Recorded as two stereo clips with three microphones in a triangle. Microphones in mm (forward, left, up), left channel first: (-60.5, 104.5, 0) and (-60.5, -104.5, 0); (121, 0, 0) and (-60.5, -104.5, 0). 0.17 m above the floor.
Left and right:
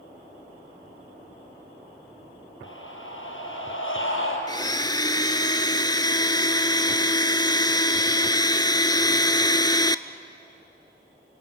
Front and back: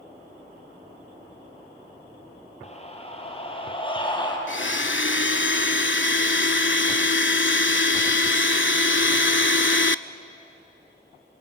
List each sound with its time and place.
2.6 s a scream: 85° left, 4.5 m; by 4.4 s 100° left, 5 m
4.5 s a blender: 25° left, 0.5 m